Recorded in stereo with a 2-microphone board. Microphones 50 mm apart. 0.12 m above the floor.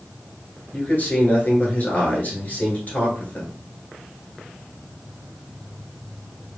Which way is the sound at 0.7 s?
35° left (ahead or behind).